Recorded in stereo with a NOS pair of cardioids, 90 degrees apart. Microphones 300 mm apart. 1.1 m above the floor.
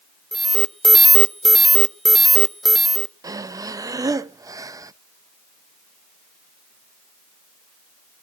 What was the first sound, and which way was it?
An alarm, straight ahead.